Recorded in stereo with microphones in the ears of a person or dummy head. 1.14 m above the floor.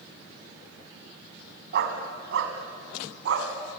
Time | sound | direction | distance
1.7 | a dog barking | 55° right (ahead or behind) | 2.5 m